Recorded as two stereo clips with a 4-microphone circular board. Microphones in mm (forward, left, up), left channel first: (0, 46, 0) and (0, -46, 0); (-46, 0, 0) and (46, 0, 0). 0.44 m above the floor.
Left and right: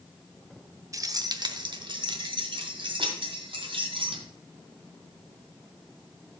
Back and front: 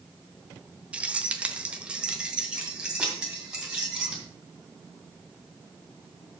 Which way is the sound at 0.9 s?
70° right.